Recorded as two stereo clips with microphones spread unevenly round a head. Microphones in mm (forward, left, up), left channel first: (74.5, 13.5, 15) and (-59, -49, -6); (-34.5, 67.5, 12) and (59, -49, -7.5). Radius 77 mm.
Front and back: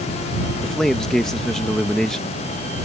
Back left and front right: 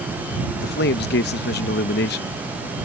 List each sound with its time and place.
0.6 s a man speaking: 110° left